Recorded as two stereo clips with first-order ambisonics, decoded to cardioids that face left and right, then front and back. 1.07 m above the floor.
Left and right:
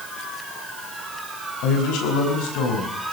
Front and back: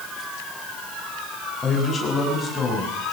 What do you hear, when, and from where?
1.6 s a man speaking: 70° left, 6.5 m